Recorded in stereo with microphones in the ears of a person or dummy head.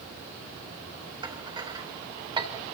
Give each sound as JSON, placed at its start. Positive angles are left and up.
{"t": 1.2, "sound": "dishes clattering", "side_deg": -15, "distance_m": 2.5}